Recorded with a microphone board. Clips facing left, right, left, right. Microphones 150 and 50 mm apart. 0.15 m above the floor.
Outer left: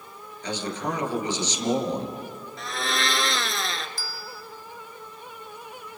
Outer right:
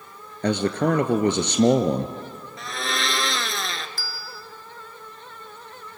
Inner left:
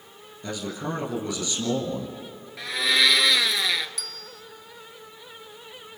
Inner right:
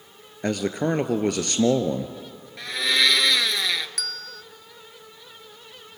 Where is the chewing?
No chewing in this recording.